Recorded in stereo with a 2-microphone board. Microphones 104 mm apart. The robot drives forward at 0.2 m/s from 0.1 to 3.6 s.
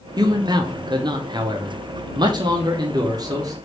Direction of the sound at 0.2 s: 40° right (ahead or behind).